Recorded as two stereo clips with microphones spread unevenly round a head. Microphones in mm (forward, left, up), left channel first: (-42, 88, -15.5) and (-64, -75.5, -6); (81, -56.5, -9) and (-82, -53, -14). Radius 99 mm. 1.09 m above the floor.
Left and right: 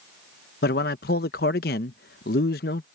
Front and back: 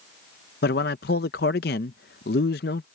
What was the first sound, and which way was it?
A man speaking, 40° left.